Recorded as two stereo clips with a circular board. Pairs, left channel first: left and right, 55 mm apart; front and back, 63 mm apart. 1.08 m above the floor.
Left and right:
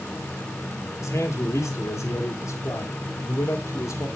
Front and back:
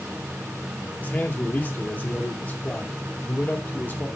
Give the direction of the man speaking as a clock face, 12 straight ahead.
10 o'clock.